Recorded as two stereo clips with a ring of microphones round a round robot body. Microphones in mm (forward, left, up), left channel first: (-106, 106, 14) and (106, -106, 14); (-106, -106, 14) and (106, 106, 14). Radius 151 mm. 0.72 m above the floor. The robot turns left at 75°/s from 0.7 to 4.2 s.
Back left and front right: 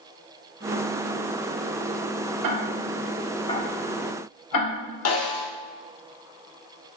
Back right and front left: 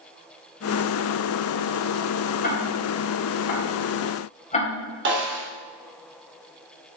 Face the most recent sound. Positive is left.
turn(degrees=95)